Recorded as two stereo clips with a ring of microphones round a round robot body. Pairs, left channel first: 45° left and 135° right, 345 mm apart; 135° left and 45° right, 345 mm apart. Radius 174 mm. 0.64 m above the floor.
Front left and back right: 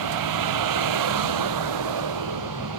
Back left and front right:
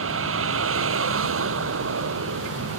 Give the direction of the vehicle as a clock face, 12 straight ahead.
3 o'clock.